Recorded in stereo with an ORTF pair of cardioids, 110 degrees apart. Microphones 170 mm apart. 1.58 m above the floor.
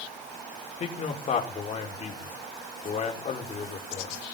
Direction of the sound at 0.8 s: 40° left.